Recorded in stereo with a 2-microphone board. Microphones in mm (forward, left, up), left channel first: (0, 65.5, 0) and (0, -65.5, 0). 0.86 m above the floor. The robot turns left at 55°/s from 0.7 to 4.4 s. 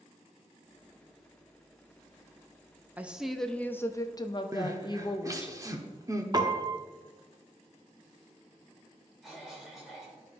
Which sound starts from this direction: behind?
A woman speaking, at 3.0 s.